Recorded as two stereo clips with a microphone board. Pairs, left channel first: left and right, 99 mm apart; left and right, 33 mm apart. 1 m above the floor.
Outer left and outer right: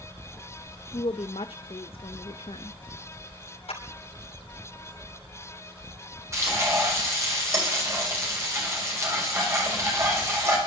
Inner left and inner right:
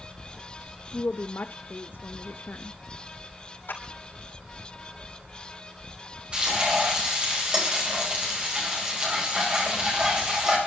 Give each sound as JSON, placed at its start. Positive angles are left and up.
{"t": 0.9, "sound": "a woman speaking", "side_deg": 70, "distance_m": 0.7}
{"t": 3.7, "sound": "a clap", "side_deg": 90, "distance_m": 5.0}
{"t": 6.3, "sound": "frying", "side_deg": -30, "distance_m": 5.5}